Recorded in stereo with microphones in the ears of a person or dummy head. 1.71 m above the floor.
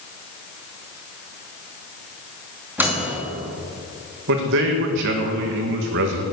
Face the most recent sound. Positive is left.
turn(degrees=-65)  # may be behind; listen again after turning